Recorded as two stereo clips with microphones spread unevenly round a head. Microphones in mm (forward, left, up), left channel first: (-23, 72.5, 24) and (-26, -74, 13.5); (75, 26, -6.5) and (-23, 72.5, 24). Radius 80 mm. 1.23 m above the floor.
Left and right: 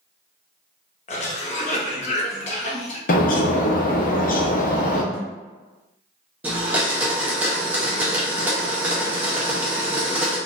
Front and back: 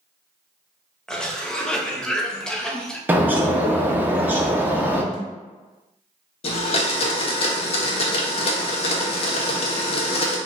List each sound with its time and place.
1.1 s a cough: 45° left, 0.8 m
3.1 s a bird: 70° left, 0.6 m
5.1 s a thud: 10° right, 1.1 m
6.4 s a blender: 10° right, 0.5 m